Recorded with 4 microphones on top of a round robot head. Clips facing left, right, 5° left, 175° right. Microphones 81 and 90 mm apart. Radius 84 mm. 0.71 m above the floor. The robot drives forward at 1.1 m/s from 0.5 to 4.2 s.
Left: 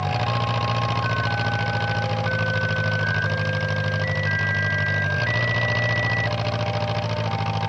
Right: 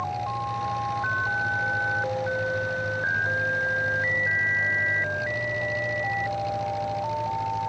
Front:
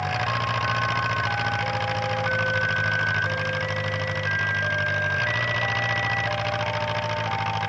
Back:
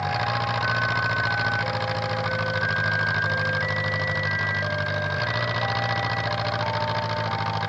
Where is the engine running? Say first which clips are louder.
Left 4 dB, back 1 dB; 105° left; by 7.7 s 110° left.